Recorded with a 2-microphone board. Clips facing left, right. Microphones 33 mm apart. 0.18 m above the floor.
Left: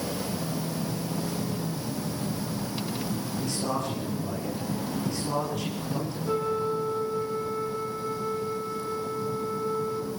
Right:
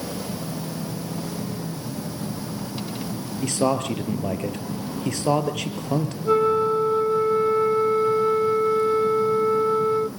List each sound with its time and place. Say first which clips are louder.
3.4 s a man speaking: right 9 dB; 70° right (ahead or behind), 3.5 m
6.2 s a flute: right 9 dB; 40° right (ahead or behind), 0.7 m